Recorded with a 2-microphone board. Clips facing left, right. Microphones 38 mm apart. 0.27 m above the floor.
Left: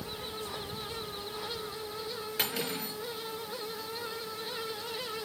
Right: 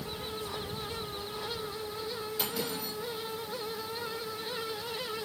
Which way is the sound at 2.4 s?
60° left (ahead or behind).